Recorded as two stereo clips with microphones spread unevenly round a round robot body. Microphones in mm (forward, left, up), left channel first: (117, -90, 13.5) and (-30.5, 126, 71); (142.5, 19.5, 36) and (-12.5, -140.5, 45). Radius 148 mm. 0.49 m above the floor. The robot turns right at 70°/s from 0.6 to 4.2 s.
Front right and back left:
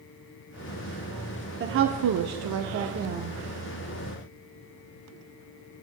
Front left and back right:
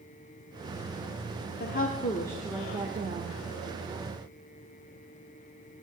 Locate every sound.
1.6 s a woman speaking: 75° left, 1.0 m; by 3.4 s 160° right, 1.0 m